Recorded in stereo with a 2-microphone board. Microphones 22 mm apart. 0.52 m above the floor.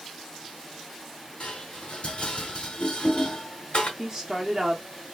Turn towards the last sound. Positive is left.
turn(degrees=-15)  # may be behind; listen again after turning